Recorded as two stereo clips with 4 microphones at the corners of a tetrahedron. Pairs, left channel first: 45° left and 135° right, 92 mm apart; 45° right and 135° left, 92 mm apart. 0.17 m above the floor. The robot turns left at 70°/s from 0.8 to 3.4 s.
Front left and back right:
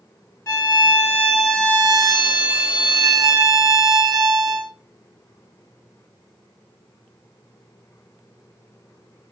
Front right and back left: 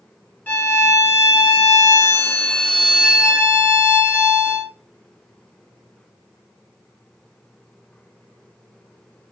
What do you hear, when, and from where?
0.5 s a violin: 10° left, 0.7 m; by 4.7 s 170° right, 0.7 m